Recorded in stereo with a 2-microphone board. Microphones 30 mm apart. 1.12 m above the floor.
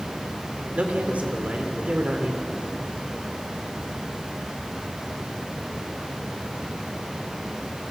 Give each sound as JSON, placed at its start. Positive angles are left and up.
{"t": 0.8, "sound": "a man speaking", "side_deg": -50, "distance_m": 3.0}